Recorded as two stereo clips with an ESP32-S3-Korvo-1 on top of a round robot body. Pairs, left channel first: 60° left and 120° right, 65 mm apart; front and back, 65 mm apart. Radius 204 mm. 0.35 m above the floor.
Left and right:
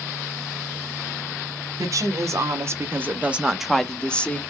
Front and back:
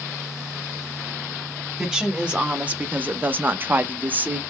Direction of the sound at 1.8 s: 105° right.